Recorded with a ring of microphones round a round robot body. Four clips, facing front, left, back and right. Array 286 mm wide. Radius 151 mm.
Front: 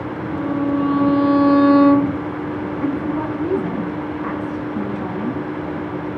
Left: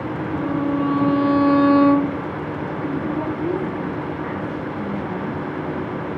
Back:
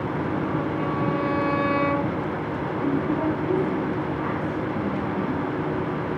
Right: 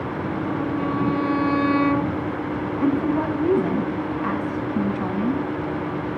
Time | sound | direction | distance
0.3 | a violin | 30° left | 1.0 m
2.8 | a woman speaking | 60° right | 9 m